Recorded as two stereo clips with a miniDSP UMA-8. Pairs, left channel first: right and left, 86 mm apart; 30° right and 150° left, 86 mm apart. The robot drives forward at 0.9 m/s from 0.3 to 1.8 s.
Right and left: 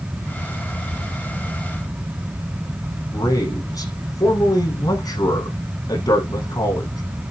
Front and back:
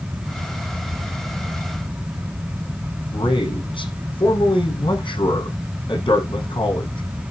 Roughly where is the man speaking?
Ahead right.